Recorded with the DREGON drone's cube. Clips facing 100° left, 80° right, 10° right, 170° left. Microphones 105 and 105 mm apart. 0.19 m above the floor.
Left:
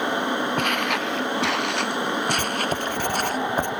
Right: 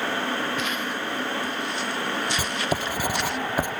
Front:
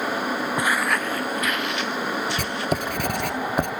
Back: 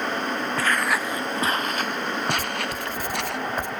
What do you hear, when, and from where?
0.6 s footsteps: 60° left; by 3.4 s 150° left
2.4 s writing: 5° left